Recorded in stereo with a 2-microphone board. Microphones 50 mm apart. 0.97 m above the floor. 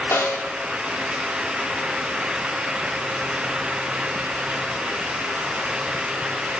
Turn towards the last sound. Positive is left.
turn(degrees=60)  # may be behind; listen again after turning